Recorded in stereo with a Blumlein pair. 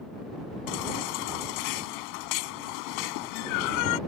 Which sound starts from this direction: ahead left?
A baby crying, at 0.7 s.